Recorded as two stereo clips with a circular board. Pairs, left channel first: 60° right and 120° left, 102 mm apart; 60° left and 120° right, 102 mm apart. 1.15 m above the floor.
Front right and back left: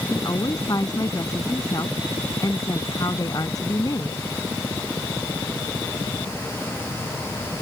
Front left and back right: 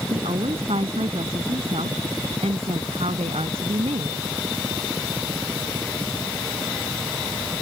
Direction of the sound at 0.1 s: 115° right.